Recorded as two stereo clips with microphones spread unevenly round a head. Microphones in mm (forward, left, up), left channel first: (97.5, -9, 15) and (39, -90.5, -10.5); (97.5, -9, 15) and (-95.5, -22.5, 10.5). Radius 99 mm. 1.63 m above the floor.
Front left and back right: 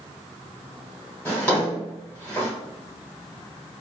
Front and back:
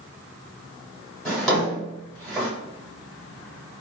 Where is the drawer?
90° left, 1.6 m.